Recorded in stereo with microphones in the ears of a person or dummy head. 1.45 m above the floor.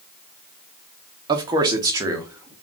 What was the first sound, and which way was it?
A man speaking, 25° right (ahead or behind).